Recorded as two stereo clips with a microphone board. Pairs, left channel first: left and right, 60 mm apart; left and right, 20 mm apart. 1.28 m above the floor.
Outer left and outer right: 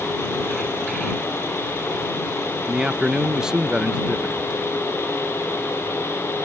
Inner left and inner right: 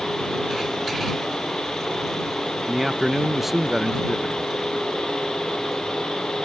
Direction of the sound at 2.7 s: 15° right (ahead or behind).